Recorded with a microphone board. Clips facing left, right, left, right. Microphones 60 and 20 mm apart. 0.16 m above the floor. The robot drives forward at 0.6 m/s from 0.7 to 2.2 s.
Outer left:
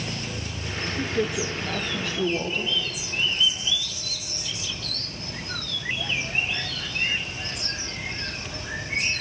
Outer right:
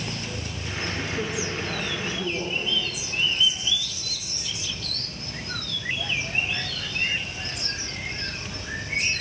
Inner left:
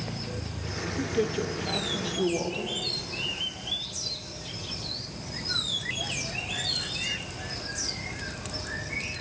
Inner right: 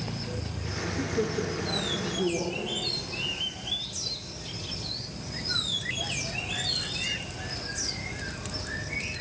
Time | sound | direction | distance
1.0 | a man speaking | 70° left (ahead or behind) | 3 m